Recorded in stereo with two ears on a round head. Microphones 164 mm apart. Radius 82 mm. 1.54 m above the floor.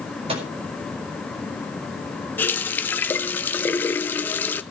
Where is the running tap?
10° left (ahead or behind), 0.5 m.